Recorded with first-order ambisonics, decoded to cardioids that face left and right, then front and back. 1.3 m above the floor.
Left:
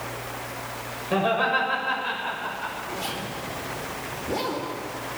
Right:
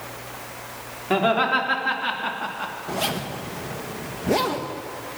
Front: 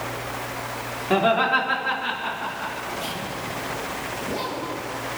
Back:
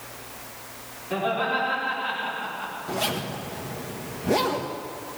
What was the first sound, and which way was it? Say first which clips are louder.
Laughter: right 3 dB, front 6 dB; 50° right.